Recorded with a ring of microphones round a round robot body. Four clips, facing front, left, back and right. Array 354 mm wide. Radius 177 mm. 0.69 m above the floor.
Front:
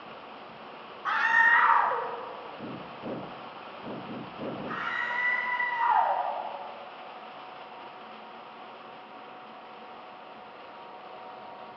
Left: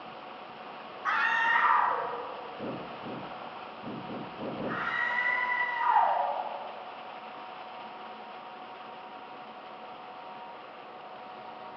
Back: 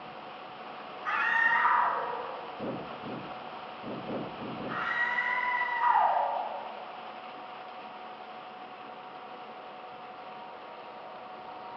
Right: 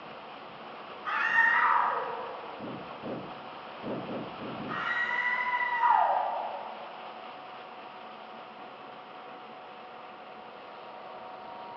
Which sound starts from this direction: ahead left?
A scream, at 1.1 s.